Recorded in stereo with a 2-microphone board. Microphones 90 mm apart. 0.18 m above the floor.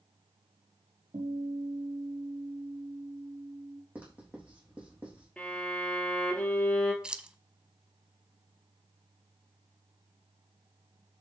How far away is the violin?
About 2 m.